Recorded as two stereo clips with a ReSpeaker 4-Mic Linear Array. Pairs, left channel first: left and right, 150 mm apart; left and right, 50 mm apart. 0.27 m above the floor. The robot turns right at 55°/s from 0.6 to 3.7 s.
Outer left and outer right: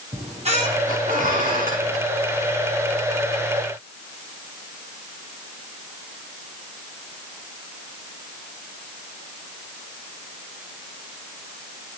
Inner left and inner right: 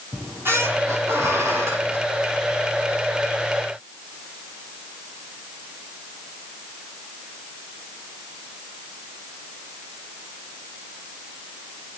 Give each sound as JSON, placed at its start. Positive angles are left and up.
{"t": 0.1, "sound": "a squeak", "azimuth_deg": -130, "distance_m": 9.0}